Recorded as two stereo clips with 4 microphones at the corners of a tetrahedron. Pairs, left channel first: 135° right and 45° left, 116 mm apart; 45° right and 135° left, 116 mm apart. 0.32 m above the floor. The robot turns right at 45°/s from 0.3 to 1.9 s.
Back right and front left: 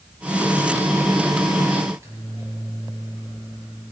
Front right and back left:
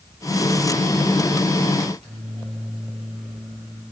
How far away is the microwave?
About 4.5 m.